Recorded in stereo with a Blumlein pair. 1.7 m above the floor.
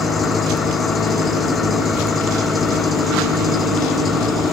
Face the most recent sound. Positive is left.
turn(degrees=15)